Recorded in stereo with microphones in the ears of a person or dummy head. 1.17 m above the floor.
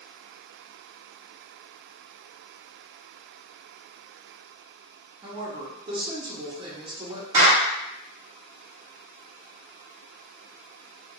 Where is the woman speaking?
20° right (ahead or behind), 0.7 m.